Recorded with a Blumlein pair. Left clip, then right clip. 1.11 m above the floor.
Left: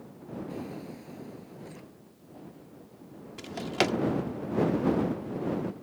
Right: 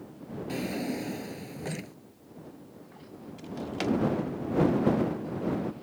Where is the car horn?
No car horn in this recording.